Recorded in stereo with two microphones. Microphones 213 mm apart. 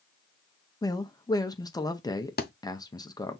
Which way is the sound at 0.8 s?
20° left (ahead or behind).